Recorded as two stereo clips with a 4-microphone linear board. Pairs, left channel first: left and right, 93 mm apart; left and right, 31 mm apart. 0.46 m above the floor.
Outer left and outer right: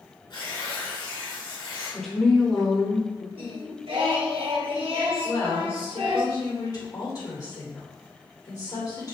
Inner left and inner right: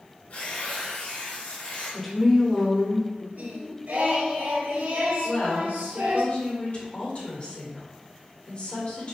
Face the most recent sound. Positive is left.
turn(degrees=45)  # may be behind; listen again after turning